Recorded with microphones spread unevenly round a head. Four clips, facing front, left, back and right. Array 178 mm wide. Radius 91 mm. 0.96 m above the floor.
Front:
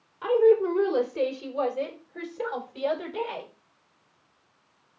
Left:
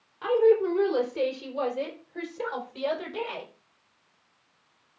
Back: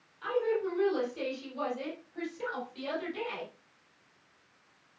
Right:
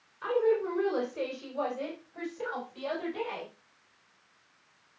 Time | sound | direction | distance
0.2 | a woman speaking | 45° left | 3 m